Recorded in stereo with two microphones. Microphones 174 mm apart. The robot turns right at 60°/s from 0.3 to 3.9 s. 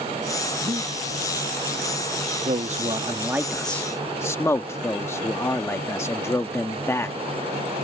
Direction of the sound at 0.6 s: 30° right (ahead or behind).